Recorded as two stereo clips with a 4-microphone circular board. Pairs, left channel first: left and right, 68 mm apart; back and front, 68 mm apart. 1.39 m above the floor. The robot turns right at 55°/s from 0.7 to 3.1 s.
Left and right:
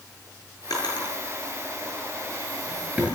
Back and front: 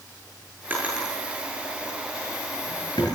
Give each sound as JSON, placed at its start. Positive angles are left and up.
{"t": 0.7, "sound": "a drawer", "azimuth_deg": 65, "distance_m": 10.0}